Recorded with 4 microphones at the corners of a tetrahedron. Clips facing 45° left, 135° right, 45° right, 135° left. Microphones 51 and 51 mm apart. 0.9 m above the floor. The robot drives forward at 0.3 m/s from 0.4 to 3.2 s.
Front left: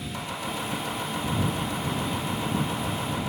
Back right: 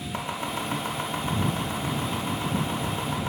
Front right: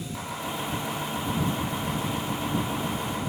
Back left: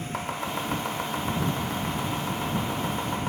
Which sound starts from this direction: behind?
Chopping, at 0.1 s.